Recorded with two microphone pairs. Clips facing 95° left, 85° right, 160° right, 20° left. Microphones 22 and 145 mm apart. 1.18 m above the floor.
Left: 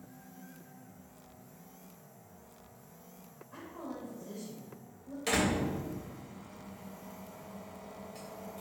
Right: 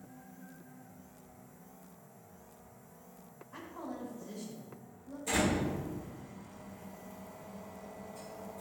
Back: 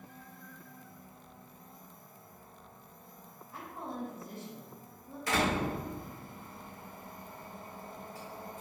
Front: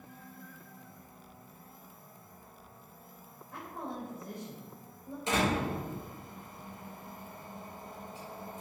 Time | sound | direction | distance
3.5 | a woman speaking | 20° left | 4 m
5.3 | a door slam | 85° left | 3.5 m